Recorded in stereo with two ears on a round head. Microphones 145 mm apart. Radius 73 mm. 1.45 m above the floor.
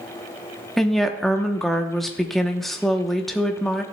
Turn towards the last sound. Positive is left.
turn(degrees=0)  # may be behind; listen again after turning